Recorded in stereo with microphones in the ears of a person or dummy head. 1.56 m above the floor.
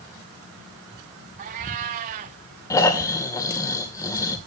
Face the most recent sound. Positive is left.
turn(degrees=20)  # may be behind; listen again after turning